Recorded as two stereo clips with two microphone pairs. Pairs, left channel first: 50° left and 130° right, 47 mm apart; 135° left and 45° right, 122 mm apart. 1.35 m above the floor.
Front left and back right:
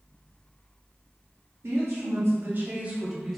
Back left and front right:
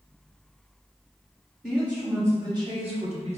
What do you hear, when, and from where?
1.6 s a woman speaking: 130° right, 1.2 m; by 3.4 s 35° right, 0.8 m